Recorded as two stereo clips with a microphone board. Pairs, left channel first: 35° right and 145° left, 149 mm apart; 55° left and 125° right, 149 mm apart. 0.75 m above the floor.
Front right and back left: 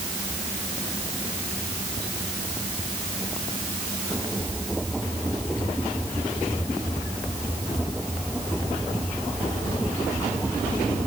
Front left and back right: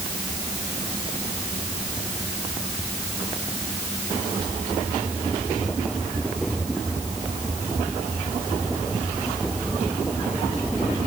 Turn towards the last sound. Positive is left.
No sound to turn to.